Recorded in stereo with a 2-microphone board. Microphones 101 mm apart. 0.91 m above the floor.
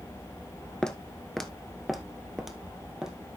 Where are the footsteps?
10° left (ahead or behind), 0.9 m; by 3.2 s 5° right (ahead or behind), 1.7 m.